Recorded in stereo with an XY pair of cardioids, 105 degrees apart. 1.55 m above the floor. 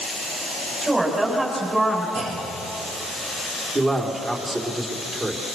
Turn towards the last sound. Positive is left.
turn(degrees=-25)